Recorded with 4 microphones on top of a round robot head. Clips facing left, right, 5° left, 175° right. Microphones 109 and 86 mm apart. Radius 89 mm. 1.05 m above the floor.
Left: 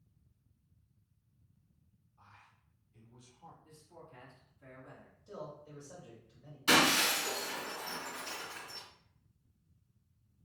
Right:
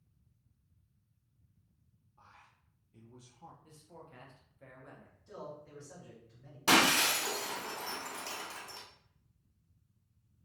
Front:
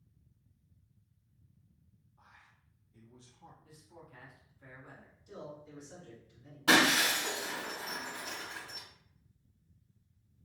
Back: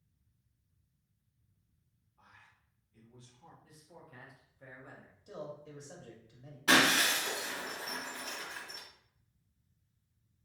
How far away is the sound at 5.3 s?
About 1.3 m.